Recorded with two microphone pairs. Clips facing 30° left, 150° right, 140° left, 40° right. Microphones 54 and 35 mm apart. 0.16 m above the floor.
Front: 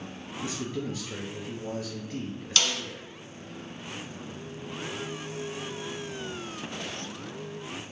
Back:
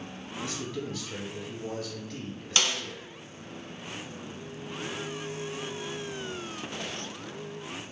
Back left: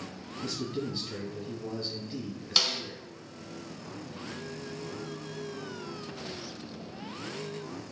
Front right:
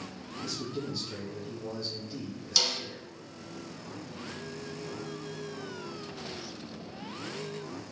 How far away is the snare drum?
About 0.9 m.